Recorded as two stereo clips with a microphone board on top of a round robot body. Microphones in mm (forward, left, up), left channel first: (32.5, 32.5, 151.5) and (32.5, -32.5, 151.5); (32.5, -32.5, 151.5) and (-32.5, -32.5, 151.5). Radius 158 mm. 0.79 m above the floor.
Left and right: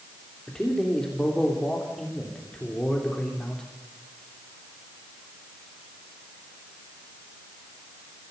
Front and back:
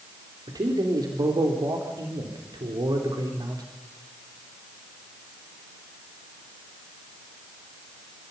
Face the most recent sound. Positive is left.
turn(degrees=170)